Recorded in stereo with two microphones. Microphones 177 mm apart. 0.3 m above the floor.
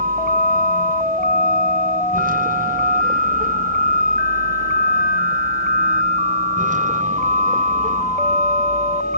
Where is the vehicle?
55° right (ahead or behind); by 9.2 s 45° right (ahead or behind).